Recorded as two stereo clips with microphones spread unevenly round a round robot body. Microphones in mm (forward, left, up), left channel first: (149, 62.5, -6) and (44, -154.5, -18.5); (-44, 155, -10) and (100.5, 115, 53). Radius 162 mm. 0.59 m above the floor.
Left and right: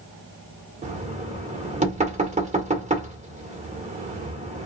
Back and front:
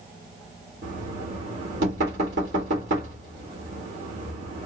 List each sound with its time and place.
0.8 s knocking: 60° right, 1.4 m